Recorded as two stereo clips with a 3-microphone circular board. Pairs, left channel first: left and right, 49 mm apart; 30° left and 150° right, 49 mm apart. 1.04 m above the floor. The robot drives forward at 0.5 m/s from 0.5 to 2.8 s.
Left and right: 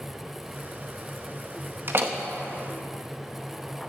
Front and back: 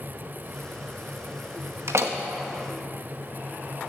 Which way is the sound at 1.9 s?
130° right.